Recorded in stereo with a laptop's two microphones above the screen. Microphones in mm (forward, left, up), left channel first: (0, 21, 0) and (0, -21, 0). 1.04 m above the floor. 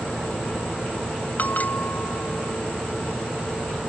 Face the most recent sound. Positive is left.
turn(degrees=45)  # may be behind; listen again after turning